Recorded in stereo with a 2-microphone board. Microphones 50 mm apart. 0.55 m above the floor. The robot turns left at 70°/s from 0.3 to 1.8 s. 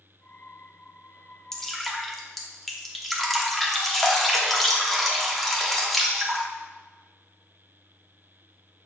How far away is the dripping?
About 1.0 m.